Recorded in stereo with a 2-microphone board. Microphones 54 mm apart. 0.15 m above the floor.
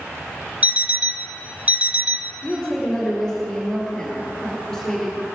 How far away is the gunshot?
I don't hear a gunshot.